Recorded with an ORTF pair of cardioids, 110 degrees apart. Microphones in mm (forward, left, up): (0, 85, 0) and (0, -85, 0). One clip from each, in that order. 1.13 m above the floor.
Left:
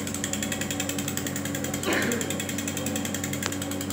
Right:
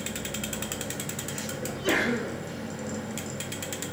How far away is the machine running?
About 1.1 m.